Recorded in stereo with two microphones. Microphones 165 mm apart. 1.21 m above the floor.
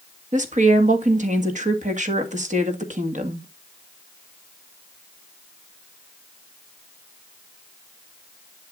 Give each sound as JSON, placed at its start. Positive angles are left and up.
{"t": 0.3, "sound": "a woman speaking", "side_deg": -50, "distance_m": 1.9}